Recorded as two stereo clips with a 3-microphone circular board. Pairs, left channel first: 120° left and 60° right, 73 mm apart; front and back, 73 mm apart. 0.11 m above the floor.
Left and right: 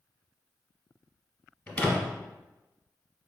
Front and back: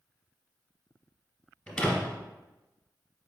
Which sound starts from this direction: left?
A door slam, at 1.7 s.